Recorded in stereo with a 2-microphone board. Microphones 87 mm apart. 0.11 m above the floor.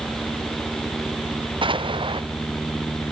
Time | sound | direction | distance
1.6 | an explosion | 65° right (ahead or behind) | ?